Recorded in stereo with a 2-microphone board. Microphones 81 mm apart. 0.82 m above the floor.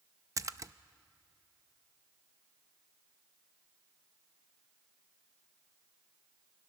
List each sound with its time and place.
0.4 s a splash: 40° right (ahead or behind), 0.5 m